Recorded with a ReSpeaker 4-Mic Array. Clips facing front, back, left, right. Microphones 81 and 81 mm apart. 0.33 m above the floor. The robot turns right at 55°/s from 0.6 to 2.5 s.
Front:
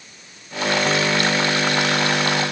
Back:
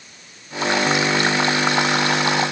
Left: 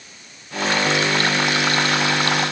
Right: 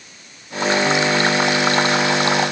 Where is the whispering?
No whispering in this recording.